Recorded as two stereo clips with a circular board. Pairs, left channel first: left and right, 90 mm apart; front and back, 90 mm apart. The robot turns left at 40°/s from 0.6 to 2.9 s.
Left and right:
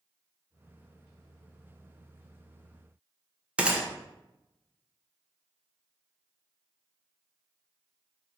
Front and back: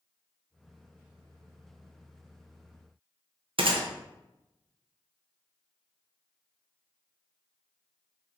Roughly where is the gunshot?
Behind.